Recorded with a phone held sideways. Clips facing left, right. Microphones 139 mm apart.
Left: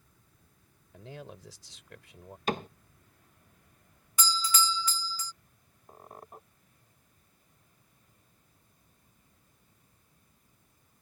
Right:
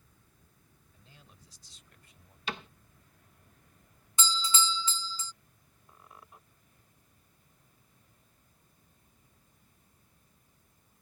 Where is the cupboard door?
45° left (ahead or behind).